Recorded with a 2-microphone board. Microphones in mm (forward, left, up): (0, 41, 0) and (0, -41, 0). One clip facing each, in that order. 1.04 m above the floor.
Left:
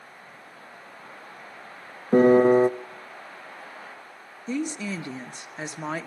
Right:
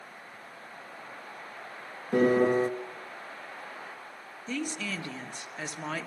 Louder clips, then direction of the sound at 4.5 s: Left 5 dB; 20° left (ahead or behind).